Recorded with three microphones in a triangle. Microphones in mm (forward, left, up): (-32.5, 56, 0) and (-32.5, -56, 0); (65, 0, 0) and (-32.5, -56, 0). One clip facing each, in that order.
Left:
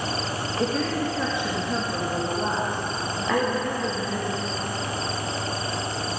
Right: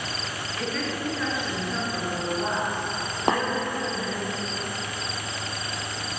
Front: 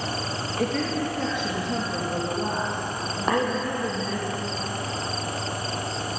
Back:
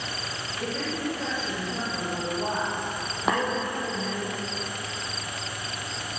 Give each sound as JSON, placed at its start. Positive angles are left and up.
{"t": 0.6, "sound": "a woman speaking", "azimuth_deg": 30, "distance_m": 3.5}
{"t": 3.3, "sound": "tapping", "azimuth_deg": -65, "distance_m": 3.0}